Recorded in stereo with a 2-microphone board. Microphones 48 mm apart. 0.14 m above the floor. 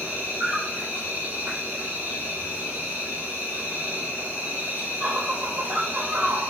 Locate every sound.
0.0 s an insect: 40° right (ahead or behind), 2 m